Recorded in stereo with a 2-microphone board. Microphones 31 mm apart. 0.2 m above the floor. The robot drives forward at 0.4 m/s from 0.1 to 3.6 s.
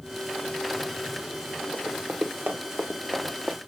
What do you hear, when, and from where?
1.7 s running footsteps: 70° right (ahead or behind), 1.8 m; by 3.6 s 65° right (ahead or behind), 1.1 m